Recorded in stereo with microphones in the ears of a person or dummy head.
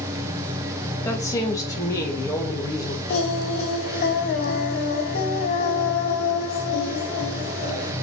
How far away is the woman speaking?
About 2 m.